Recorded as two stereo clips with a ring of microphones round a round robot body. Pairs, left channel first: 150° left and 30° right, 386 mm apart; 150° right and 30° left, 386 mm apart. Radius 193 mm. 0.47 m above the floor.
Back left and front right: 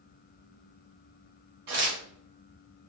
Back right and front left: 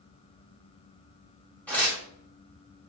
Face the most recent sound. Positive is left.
turn(degrees=-65)